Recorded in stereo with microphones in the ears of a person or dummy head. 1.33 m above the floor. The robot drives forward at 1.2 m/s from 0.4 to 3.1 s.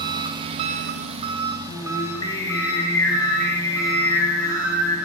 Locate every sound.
0.0 s an engine running: 25° right (ahead or behind), 0.8 m; by 5.1 s 5° right (ahead or behind), 3 m
1.7 s singing: 30° left (ahead or behind), 1.5 m; by 5.0 s 15° left (ahead or behind), 3 m